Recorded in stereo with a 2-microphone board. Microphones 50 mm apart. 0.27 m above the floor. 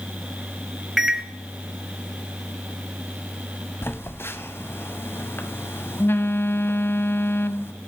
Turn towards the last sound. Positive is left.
turn(degrees=55)  # may be behind; listen again after turning